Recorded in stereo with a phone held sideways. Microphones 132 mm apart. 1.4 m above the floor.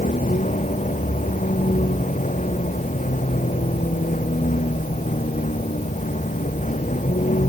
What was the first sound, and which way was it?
A vehicle, 70° left (ahead or behind).